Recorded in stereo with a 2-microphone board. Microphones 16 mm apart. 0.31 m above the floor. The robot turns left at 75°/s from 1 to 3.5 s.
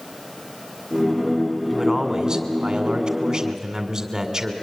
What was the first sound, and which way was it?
A man speaking, 10° right.